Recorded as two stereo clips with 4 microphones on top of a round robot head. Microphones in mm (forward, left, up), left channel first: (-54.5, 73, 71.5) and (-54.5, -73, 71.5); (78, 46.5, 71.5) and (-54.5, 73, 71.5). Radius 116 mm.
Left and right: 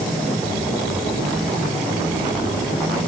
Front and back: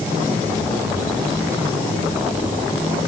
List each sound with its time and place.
Only background noise.